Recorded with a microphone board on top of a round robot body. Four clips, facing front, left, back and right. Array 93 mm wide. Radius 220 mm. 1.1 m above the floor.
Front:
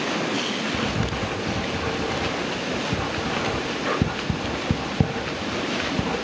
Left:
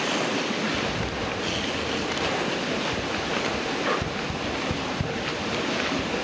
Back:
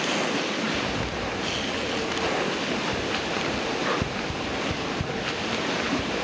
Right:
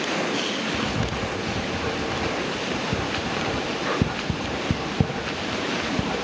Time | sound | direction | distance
0.7 | writing | 40° right | 2 m